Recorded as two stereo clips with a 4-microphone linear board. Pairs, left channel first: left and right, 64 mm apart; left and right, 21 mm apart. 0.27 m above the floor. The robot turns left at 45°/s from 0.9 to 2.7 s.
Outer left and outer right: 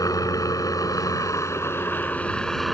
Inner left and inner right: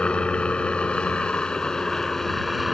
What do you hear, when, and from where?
0.0 s a helicopter: 85° left; by 2.8 s 5° left